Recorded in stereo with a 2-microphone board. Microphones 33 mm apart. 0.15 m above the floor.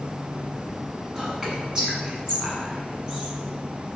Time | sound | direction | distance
1.1 | whispering | 20° right (ahead or behind) | 1.0 m